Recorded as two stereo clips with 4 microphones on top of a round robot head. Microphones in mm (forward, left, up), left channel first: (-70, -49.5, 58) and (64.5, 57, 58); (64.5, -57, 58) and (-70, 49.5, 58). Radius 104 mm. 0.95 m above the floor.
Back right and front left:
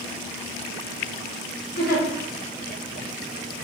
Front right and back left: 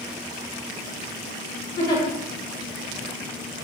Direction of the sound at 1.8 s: 100° right.